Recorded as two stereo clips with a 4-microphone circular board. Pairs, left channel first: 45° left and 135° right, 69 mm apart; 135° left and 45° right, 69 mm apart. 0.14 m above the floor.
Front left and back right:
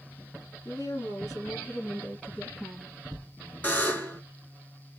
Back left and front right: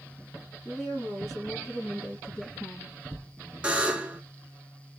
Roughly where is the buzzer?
Ahead.